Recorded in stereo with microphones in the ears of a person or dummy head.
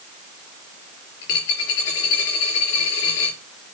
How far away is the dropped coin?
About 5.5 m.